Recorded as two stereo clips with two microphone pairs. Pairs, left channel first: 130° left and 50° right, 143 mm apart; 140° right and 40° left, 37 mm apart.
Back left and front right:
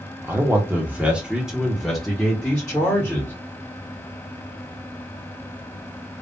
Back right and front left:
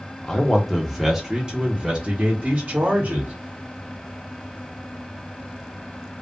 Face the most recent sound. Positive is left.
turn(degrees=50)